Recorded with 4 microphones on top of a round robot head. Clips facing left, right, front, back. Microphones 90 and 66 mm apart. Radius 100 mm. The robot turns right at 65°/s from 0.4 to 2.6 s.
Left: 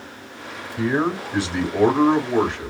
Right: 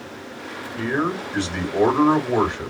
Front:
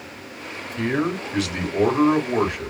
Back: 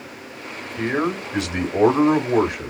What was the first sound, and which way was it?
A man speaking, 120° left.